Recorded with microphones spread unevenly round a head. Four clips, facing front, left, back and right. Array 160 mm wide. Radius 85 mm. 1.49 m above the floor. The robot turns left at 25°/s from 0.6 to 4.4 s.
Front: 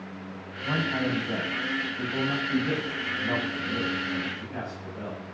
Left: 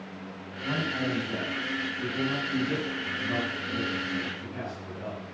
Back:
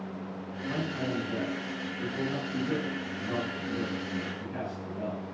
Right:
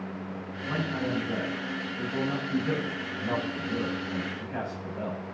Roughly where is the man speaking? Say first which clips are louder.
Left 1 dB, front 5 dB; ahead.